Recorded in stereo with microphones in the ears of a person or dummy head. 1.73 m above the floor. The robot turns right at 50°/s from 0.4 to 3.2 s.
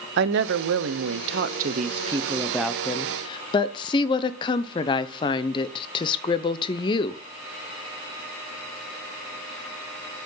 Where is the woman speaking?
105° right, 0.8 m; by 7.2 s 35° left, 0.8 m.